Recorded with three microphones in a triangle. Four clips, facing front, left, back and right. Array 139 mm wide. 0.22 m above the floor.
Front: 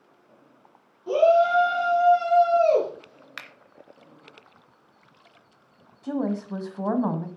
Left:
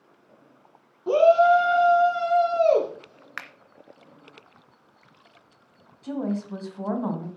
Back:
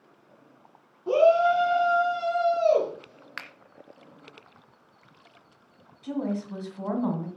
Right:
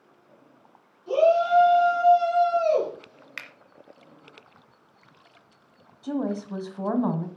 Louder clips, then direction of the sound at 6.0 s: Right 1 dB, front 3 dB; 25° right.